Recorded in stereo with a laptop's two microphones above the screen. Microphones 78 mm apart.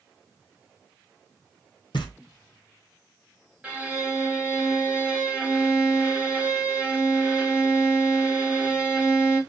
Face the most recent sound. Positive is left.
turn(degrees=-15)  # may be behind; listen again after turning